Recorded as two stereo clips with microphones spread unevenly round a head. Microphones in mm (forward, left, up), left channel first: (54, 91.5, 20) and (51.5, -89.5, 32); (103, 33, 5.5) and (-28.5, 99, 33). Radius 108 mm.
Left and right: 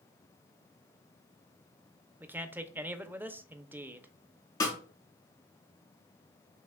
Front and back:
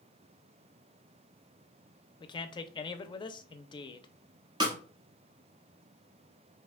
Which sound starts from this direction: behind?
A snare drum, at 4.6 s.